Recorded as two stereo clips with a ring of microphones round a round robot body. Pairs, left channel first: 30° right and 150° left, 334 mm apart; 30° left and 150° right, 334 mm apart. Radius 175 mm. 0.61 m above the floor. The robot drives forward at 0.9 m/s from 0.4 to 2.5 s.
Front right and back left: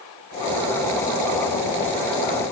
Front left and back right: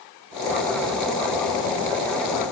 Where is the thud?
No thud in this recording.